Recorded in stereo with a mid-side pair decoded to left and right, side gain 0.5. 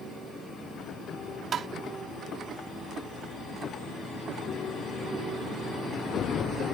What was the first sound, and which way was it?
Tapping, 50° right.